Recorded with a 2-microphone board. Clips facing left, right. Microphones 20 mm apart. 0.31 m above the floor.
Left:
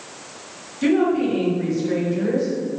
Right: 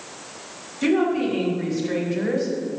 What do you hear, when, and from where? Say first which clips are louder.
0.8 s a woman speaking: left 2 dB; 5° right (ahead or behind), 2.0 m; by 2.5 s 35° right (ahead or behind), 1.6 m